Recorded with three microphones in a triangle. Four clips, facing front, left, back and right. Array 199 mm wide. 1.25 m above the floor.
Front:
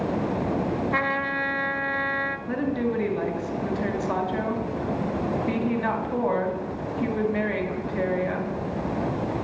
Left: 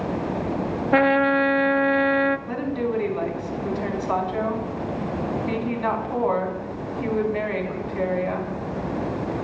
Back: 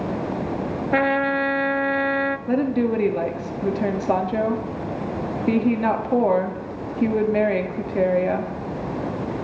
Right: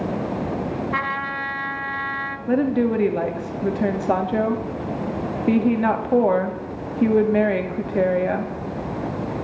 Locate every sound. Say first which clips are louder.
0.9 s a trumpet: left 8 dB, back 6 dB; 120° left, 0.6 m
2.5 s a woman speaking: right 6 dB, back 5 dB; 130° right, 2.5 m